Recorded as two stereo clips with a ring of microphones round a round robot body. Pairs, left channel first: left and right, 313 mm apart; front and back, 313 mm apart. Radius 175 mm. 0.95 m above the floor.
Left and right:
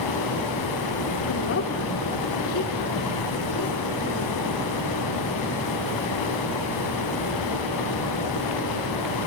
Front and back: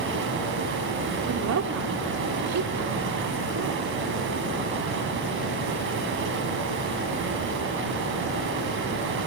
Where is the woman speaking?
140° left, 2.5 m.